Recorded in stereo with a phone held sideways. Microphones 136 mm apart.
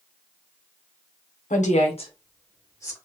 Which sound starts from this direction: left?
A woman speaking, at 1.5 s.